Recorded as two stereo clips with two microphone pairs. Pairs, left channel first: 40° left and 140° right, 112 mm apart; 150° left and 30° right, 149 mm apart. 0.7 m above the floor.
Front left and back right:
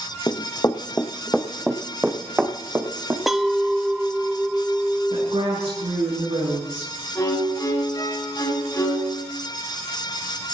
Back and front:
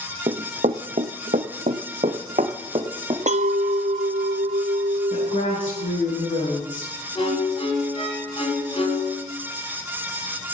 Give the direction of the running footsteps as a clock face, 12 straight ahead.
12 o'clock.